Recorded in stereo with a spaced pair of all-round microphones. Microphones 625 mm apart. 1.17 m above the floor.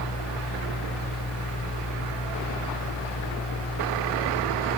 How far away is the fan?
About 1.1 m.